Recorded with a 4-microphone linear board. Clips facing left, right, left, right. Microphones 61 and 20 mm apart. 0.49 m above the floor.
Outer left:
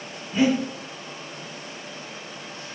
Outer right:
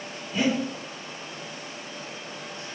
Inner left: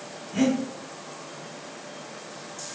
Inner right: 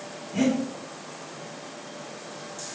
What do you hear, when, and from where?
0.3 s breathing: 25° left (ahead or behind), 1.3 m